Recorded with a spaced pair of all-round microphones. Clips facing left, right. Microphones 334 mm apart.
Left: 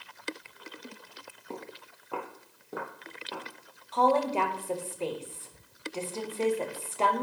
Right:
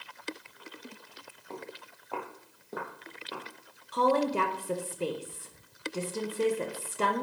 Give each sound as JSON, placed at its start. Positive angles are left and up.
{"t": 1.5, "sound": "footsteps", "side_deg": 40, "distance_m": 1.7}
{"t": 3.9, "sound": "a woman speaking", "side_deg": -20, "distance_m": 1.2}